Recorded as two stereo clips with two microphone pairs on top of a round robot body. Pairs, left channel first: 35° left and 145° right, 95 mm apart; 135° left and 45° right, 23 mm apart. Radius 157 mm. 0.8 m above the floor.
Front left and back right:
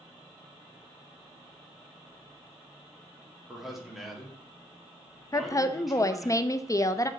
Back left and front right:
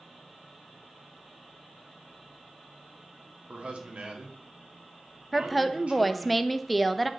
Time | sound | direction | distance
3.5 | a man speaking | 55° right | 1.9 m
5.3 | a woman speaking | 30° left | 0.7 m